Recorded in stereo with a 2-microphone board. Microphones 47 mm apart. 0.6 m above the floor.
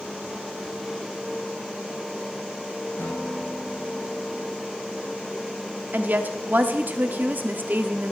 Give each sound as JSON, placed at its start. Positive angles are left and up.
{"t": 3.0, "sound": "a guitar", "side_deg": 50, "distance_m": 6.0}
{"t": 5.9, "sound": "a woman speaking", "side_deg": -40, "distance_m": 1.0}